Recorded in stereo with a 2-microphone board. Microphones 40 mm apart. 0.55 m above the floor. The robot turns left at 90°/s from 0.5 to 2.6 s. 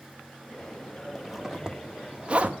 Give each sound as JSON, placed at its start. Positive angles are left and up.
{"t": 1.1, "sound": "a zipper", "side_deg": 5, "distance_m": 1.2}